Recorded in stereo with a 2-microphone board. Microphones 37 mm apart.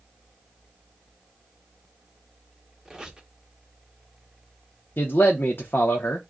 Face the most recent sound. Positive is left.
turn(degrees=75)  # may be behind; listen again after turning